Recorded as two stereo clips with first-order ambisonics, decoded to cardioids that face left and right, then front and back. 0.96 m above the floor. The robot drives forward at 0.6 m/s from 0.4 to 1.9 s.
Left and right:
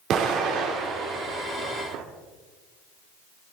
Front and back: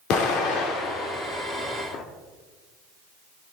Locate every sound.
0.1 s an explosion: 40° right, 2.5 m; by 2.0 s 55° right, 1.8 m